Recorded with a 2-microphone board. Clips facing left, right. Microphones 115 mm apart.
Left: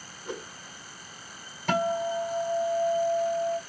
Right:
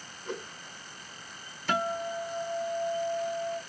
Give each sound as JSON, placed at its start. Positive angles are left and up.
{"t": 0.2, "sound": "a whoosh", "side_deg": 10, "distance_m": 1.0}
{"t": 1.7, "sound": "a guitar", "side_deg": 55, "distance_m": 1.9}